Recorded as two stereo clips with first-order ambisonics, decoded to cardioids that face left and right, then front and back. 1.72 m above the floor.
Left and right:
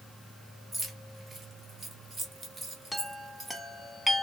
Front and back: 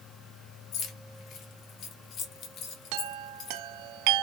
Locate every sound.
0.7 s keys jangling: 25° right, 1.2 m
2.9 s a chime: straight behind, 0.6 m